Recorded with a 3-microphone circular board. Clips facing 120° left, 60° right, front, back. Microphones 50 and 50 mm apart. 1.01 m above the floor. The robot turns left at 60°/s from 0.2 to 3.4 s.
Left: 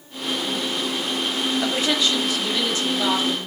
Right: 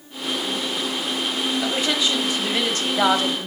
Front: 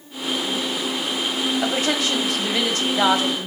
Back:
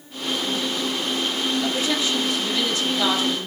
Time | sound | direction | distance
1.6 | a woman speaking | 50° left | 2 m